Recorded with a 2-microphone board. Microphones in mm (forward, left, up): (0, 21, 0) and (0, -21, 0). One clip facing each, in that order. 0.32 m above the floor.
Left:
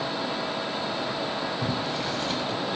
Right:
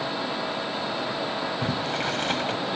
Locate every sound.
1.6 s boiling: 55° right (ahead or behind), 0.6 m